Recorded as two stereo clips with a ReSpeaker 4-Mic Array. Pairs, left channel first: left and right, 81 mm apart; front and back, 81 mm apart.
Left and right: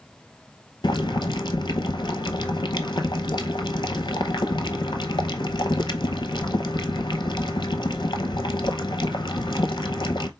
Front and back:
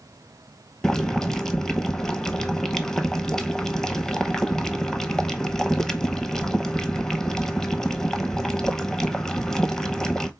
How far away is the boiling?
About 0.6 m.